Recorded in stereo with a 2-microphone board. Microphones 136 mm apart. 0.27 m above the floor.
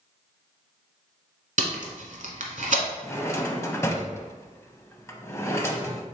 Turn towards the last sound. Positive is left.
turn(degrees=20)  # may be behind; listen again after turning